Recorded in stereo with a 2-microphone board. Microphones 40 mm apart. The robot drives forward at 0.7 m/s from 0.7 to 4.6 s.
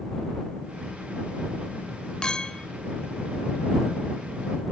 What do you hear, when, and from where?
2.2 s a clink: 20° left (ahead or behind), 0.7 m